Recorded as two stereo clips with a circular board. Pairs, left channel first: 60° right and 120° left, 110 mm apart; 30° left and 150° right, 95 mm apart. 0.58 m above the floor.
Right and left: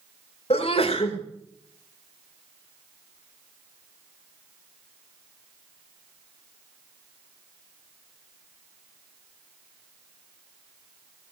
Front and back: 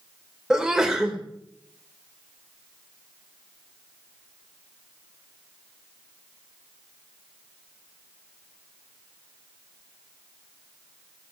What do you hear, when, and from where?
0.5 s a sneeze: 70° right, 2.5 m